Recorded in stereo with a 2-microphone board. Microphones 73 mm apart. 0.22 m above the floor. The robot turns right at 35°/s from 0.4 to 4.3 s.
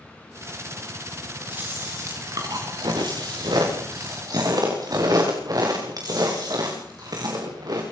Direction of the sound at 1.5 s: 155° right.